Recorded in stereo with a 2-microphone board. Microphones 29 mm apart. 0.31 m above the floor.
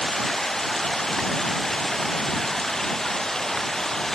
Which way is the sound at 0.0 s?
15° left (ahead or behind).